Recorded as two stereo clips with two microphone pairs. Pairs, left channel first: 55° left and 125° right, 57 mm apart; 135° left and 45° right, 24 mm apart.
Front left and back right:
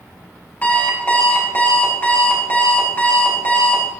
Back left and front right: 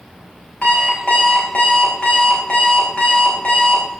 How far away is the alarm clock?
About 5 m.